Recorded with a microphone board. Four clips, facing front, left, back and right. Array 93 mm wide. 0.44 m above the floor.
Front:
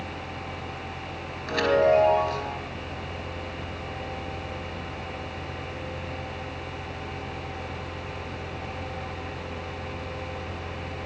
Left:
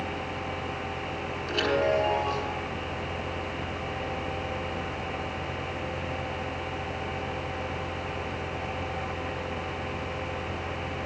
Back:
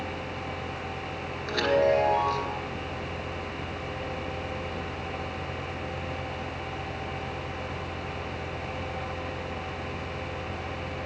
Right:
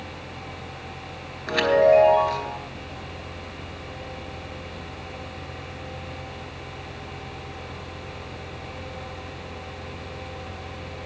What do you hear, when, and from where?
1.5 s a chime: 85° right, 2.5 m